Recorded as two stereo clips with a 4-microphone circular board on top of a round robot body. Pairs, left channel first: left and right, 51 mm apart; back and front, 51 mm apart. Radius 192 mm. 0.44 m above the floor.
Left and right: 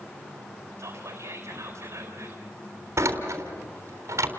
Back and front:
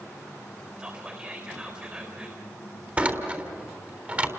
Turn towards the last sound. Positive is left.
turn(degrees=-60)